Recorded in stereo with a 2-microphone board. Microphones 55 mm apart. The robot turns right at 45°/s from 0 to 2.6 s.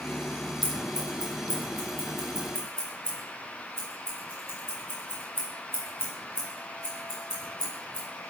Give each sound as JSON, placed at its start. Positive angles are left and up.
{"t": 0.6, "sound": "scissors", "side_deg": 40, "distance_m": 3.0}